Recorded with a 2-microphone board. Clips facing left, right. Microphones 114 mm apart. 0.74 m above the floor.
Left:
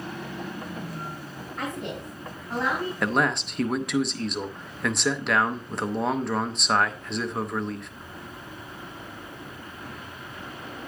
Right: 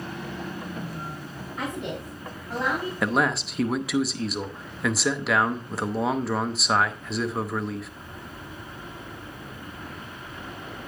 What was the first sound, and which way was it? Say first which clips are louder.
A woman speaking: right 1 dB; 5° right (ahead or behind).